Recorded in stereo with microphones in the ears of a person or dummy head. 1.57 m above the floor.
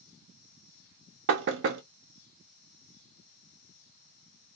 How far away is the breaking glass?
No breaking glass in this recording.